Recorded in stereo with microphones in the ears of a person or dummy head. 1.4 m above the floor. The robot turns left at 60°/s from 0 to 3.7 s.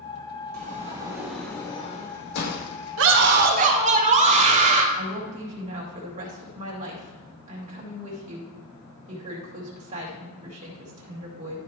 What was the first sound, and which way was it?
A sliding door, 135° right.